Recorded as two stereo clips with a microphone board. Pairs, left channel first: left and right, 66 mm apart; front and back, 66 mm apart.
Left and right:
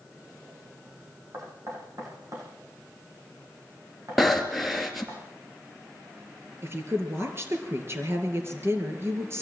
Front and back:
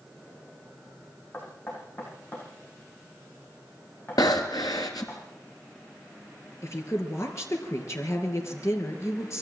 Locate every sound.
1.3 s knocking: 55° right, 8.5 m
4.2 s breathing: straight ahead, 2.5 m
6.6 s a woman speaking: 40° right, 4.5 m